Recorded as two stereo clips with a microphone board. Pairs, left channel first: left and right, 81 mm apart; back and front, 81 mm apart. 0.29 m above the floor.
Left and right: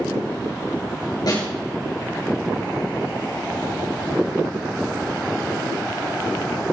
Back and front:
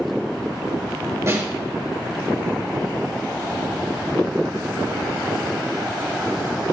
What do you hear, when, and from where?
1.3 s a snare drum: 55° left, 4.5 m